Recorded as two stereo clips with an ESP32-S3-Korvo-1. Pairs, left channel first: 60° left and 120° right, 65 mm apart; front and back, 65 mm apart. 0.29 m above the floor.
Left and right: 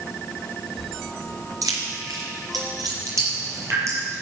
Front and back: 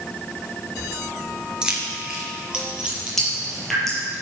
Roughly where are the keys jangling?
Right.